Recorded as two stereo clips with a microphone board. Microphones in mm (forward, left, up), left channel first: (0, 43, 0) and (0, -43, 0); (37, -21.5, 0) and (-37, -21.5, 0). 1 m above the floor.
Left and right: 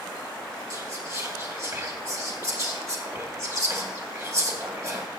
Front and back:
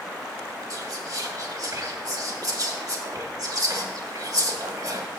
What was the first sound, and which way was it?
Whispering, 145° right.